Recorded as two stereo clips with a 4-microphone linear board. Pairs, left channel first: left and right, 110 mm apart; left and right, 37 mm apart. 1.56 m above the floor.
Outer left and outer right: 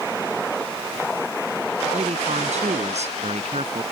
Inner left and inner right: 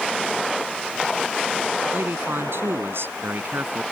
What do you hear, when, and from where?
1.9 s a man speaking: 85° right